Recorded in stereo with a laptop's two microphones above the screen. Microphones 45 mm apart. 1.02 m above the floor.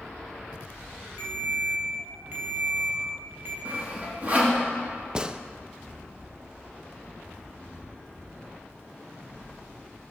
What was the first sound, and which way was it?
A ringtone, 40° right (ahead or behind).